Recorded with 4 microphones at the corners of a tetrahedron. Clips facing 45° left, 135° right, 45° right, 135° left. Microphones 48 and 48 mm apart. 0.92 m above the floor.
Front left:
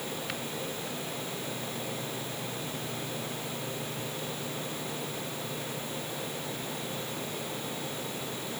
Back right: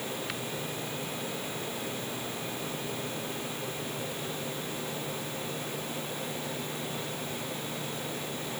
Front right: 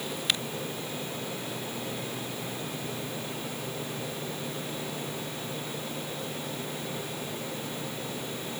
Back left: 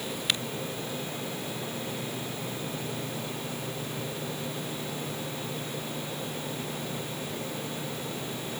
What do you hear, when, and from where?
Only background noise.